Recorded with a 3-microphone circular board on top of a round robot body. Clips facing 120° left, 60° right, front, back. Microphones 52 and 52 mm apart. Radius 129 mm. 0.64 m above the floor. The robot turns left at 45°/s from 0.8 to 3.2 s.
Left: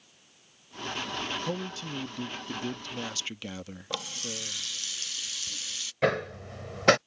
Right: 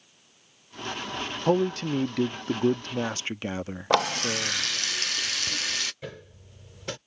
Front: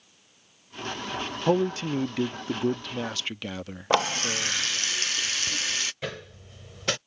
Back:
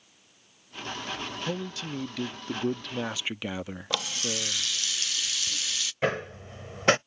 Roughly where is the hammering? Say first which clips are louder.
Left 15 dB, back 8 dB; behind left.